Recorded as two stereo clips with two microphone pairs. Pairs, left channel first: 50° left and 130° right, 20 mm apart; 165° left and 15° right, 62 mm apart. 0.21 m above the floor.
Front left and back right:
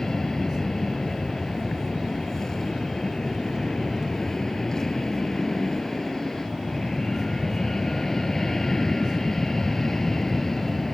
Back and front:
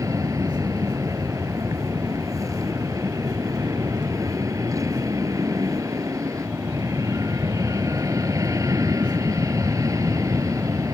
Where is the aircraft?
15° right; by 10.9 s 20° right.